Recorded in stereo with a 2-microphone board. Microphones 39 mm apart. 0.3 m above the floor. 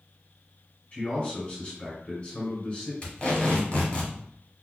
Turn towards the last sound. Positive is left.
turn(degrees=30)  # may be behind; listen again after turning